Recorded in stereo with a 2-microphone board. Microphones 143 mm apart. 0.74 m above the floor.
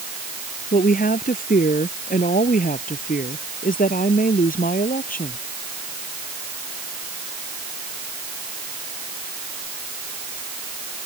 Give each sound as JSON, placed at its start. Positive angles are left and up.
{"t": 0.7, "sound": "a woman speaking", "side_deg": 80}